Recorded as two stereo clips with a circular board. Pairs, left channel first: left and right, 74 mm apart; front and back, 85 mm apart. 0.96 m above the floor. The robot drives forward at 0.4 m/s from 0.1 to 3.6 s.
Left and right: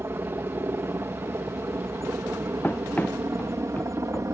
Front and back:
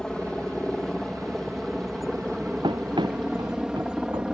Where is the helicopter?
75° right; by 4.3 s 105° right.